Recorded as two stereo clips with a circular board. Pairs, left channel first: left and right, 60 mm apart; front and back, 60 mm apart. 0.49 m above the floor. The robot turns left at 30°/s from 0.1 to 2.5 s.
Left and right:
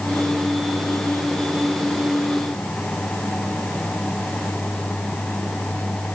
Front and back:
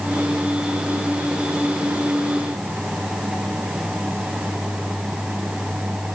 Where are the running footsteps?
No running footsteps in this recording.